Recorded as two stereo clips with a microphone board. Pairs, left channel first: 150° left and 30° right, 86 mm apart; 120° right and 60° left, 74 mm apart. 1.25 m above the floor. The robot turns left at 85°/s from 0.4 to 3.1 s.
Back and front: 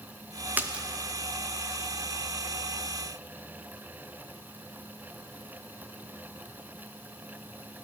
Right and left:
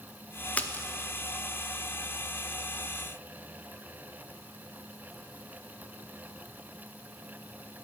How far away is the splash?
About 0.6 m.